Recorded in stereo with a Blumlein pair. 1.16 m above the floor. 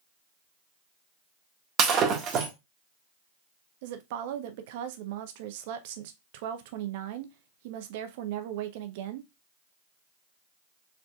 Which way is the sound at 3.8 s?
50° right.